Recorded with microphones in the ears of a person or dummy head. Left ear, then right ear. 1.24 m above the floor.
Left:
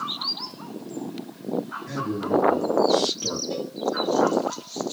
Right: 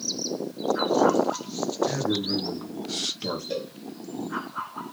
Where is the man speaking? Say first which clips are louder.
Left 1 dB; 30° right (ahead or behind), 0.7 m.